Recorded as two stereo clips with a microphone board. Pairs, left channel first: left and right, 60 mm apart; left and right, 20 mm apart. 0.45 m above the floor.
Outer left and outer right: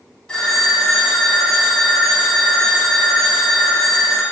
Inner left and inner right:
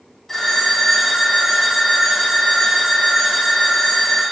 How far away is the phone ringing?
About 2 m.